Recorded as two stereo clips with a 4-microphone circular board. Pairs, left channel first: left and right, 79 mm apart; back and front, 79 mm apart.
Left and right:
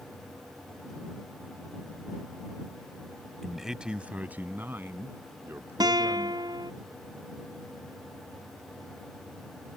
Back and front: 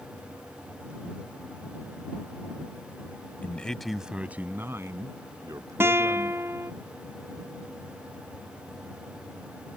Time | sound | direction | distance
3.4 | a man speaking | straight behind | ?
5.8 | a guitar | 60° right | ?